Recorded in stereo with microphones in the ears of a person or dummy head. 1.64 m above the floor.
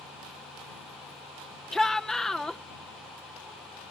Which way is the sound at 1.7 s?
Centre (ahead or behind).